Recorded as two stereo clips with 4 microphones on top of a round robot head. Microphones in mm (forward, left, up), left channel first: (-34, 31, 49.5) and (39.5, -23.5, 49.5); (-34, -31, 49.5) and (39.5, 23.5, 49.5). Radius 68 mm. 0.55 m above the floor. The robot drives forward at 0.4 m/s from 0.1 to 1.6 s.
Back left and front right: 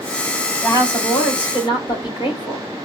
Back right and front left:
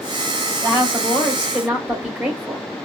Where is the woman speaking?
100° left, 2.5 m; by 2.6 s 110° left, 2.5 m.